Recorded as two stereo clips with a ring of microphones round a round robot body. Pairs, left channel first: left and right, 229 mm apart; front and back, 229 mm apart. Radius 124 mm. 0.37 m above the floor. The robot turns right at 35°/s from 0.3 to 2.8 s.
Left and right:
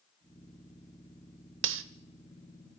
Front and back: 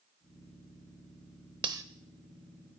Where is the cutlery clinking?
110° right, 0.6 m; by 1.8 s 105° right, 0.6 m.